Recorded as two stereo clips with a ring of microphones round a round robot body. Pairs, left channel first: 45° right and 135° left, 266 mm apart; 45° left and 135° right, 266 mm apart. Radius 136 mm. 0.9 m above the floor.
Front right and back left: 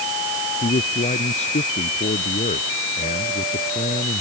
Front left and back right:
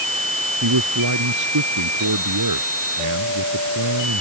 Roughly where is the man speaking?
Right.